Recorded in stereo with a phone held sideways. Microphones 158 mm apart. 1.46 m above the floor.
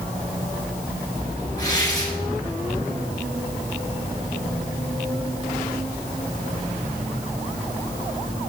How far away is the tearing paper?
About 8 m.